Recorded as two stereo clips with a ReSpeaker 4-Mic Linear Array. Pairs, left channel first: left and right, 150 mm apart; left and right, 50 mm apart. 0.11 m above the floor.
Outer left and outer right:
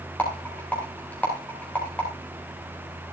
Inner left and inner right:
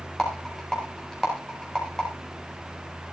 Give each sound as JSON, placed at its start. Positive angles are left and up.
{"t": 0.2, "sound": "a rattle", "side_deg": 10, "distance_m": 8.5}